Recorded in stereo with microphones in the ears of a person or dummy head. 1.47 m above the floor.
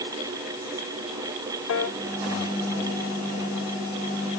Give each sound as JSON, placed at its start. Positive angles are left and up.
{"t": 1.7, "sound": "a piano", "side_deg": 70}